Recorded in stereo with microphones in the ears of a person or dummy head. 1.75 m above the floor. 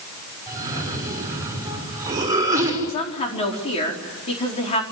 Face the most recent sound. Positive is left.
turn(degrees=35)  # may be behind; listen again after turning